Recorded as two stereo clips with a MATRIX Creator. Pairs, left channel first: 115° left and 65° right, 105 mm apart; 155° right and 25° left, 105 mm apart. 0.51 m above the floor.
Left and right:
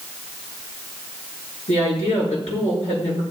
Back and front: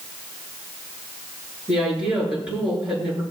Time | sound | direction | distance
1.7 | a woman speaking | 100° left | 8.5 m